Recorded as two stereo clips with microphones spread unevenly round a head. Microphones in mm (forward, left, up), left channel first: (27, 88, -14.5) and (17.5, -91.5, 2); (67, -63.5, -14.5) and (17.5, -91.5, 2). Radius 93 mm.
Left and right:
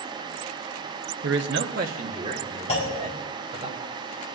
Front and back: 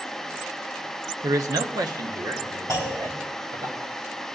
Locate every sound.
1.2 s a man speaking: 120° right, 0.8 m; by 3.7 s 160° right, 2.5 m
2.7 s a clunk: 145° left, 4 m